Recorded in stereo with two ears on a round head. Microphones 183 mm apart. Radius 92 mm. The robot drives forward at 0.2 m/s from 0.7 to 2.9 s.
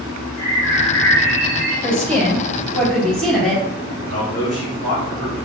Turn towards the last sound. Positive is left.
turn(degrees=35)  # may be behind; listen again after turning